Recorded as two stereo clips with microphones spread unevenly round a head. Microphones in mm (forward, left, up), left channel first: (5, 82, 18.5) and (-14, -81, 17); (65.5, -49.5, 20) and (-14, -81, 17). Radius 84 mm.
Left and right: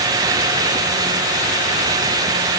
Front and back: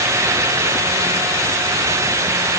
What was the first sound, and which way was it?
Only background noise.